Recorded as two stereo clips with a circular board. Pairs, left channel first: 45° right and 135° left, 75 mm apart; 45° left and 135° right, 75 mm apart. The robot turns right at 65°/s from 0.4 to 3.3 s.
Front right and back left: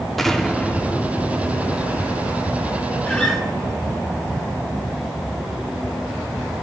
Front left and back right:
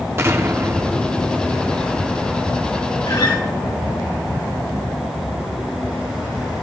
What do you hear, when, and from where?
0.2 s an explosion: 130° right, 1.1 m; by 3.0 s 35° left, 1.1 m
3.1 s a guitar: 20° left, 1.8 m; by 3.4 s 35° left, 1.8 m